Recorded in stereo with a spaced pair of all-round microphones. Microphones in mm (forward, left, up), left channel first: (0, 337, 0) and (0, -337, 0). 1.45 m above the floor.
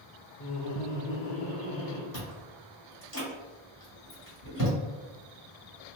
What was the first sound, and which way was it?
Laughter, 30° left (ahead or behind).